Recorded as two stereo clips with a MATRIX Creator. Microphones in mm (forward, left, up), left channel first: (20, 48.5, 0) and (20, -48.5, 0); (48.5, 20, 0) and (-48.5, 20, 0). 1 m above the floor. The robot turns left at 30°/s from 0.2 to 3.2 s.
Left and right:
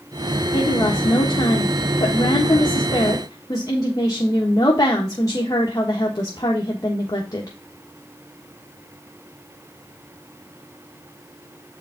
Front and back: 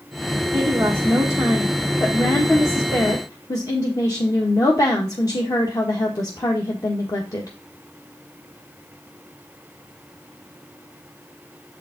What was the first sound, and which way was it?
A woman speaking, 120° left.